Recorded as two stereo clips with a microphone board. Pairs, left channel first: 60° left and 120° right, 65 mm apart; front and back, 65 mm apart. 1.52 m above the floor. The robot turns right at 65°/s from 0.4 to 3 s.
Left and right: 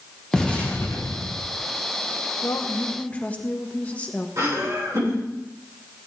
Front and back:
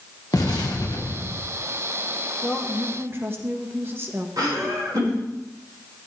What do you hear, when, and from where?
0.3 s an explosion: 20° right, 1.7 m; by 1.5 s 50° left, 1.7 m
2.4 s a woman speaking: 90° left, 1.7 m; by 4.3 s 125° left, 1.7 m
4.4 s laughter: 155° right, 7 m